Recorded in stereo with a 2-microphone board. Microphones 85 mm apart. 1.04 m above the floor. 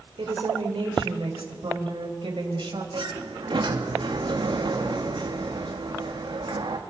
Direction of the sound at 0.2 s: 80° right.